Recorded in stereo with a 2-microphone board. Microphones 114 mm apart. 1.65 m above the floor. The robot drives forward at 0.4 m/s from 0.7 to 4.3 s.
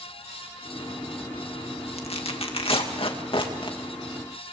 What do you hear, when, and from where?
2.0 s tearing paper: 60° left (ahead or behind), 2 m; by 3.8 s 45° left (ahead or behind), 2.5 m